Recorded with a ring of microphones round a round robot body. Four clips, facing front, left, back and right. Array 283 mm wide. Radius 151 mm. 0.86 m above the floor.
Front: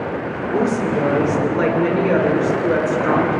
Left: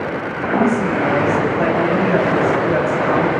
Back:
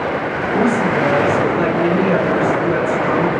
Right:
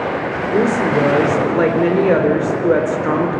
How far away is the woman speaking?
About 4 m.